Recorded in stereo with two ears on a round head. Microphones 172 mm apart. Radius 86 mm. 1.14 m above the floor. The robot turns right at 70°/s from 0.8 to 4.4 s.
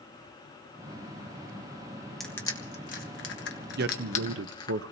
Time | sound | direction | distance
2.2 | crushing | centre (ahead or behind) | 1.4 m
3.8 | a man speaking | 125° right | 0.5 m